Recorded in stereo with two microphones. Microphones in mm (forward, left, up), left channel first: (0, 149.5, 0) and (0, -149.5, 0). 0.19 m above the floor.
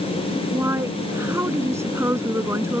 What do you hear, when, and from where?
0.5 s a woman speaking: 10° right (ahead or behind)